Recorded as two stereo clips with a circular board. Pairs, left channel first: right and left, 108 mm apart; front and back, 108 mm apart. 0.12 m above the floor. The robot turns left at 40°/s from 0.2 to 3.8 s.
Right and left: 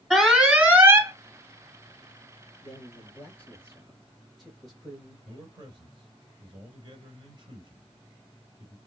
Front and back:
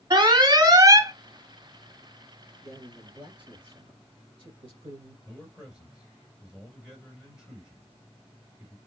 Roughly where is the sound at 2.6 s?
Behind right.